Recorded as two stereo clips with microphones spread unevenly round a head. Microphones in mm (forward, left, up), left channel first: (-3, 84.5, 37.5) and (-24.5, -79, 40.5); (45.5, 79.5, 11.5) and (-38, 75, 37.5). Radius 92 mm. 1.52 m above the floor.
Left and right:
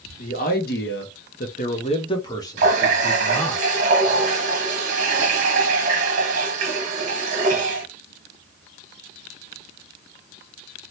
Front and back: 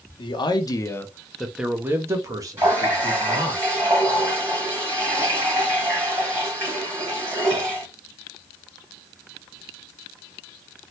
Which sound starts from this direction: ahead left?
A man speaking, at 0.2 s.